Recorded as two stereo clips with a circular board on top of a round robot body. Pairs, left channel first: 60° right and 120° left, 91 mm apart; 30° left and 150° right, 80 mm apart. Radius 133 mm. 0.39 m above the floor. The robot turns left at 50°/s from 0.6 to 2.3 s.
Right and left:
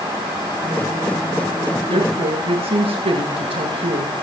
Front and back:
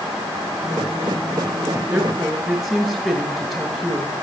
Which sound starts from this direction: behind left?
A woman speaking, at 1.9 s.